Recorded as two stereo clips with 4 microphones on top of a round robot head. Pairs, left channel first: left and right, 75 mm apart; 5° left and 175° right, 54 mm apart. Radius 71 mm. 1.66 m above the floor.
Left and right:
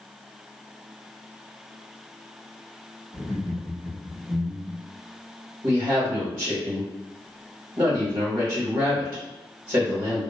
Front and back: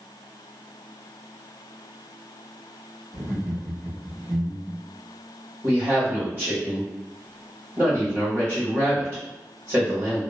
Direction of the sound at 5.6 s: 125° right.